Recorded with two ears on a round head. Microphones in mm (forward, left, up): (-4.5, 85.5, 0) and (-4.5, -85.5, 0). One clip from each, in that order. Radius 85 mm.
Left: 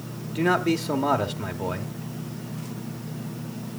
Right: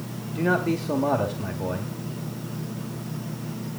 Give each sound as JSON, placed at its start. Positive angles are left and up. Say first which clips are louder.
{"t": 0.3, "sound": "a man speaking", "louder": "left 1 dB", "side_deg": 40, "distance_m": 1.4}